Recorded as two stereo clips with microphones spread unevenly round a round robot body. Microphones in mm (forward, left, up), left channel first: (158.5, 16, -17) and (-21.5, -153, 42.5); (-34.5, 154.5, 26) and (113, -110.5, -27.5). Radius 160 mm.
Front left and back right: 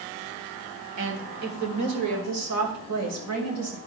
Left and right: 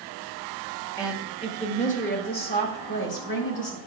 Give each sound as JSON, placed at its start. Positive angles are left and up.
{"t": 1.0, "sound": "a woman speaking", "azimuth_deg": -155, "distance_m": 1.7}